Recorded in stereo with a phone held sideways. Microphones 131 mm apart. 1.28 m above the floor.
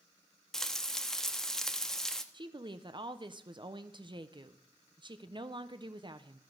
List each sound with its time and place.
0.5 s frying: 5° left (ahead or behind), 1.0 m
2.3 s a woman speaking: 35° right (ahead or behind), 0.9 m